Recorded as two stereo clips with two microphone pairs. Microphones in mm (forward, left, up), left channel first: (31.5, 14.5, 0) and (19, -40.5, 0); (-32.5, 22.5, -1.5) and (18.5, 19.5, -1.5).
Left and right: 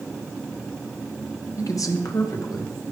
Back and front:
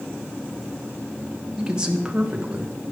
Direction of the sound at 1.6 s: 70° left.